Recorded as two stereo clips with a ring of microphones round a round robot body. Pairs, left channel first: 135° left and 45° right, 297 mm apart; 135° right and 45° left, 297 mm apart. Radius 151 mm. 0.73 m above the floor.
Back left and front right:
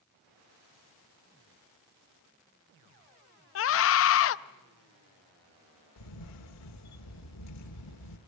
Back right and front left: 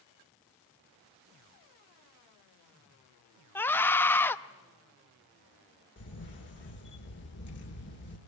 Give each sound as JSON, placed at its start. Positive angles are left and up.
{"t": 3.5, "sound": "a scream", "azimuth_deg": 145, "distance_m": 0.5}
{"t": 6.0, "sound": "a camera shutter", "azimuth_deg": 170, "distance_m": 1.8}